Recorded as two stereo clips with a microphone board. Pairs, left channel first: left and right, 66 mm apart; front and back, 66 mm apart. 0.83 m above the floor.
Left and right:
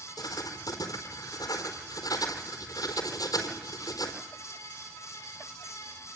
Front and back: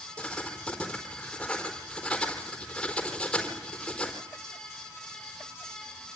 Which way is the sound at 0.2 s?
80° left.